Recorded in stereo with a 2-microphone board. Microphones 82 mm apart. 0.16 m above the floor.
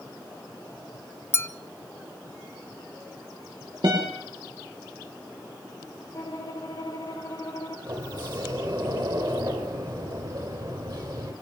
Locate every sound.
1.3 s a clink: 30° left (ahead or behind), 0.7 m
3.8 s a guitar: 75° right (ahead or behind), 9.5 m
6.1 s a violin: 45° left (ahead or behind), 4 m
7.9 s a sliding door: 55° right (ahead or behind), 4 m